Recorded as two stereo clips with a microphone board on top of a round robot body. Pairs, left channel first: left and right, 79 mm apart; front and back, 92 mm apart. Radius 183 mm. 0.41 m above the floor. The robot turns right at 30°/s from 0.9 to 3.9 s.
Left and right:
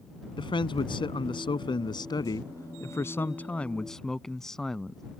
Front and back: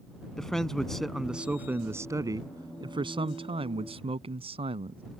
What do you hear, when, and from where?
0.4 s a man speaking: 85° left; by 5.0 s 175° left